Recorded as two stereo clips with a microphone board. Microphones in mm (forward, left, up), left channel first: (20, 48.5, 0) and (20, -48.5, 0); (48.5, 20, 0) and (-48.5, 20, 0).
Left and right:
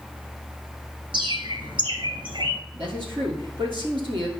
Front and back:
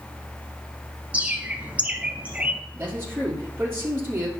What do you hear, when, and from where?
1.1 s a bird: 105° right, 1.2 m
2.7 s a man speaking: 115° right, 3 m